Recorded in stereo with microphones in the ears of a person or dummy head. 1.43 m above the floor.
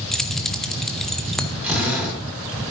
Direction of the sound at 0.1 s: Centre (ahead or behind).